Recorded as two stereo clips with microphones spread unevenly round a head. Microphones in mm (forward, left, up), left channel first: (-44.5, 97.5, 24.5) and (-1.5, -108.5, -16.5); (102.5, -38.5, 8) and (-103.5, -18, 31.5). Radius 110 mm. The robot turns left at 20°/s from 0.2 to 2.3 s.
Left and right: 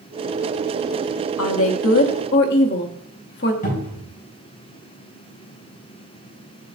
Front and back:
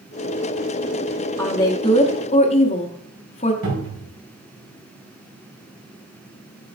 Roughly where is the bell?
No bell in this recording.